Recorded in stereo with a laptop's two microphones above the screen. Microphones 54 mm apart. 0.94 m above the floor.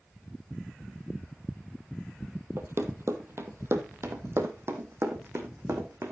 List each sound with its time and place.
2.6 s running footsteps: 55° right (ahead or behind), 1.5 m; by 6.1 s 50° right (ahead or behind), 3 m